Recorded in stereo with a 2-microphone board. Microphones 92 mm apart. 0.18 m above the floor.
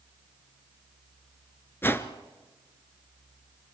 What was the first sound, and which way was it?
A whoosh, 20° left (ahead or behind).